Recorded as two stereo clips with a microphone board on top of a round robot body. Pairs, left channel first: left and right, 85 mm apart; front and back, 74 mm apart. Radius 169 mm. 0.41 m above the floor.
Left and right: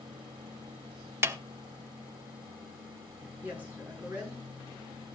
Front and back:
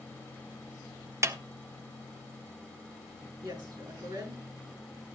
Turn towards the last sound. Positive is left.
turn(degrees=-160)